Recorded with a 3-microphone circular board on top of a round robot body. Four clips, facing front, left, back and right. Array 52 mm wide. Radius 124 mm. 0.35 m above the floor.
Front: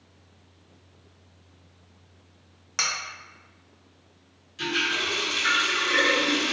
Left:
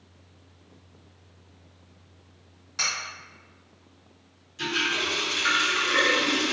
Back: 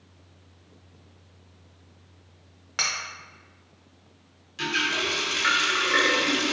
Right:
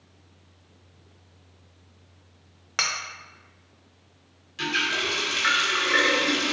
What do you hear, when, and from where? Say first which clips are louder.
2.8 s cutlery clinking: right 2 dB, even; 100° right, 0.8 m
4.6 s a running tap: right 1 dB, even; 125° right, 1.4 m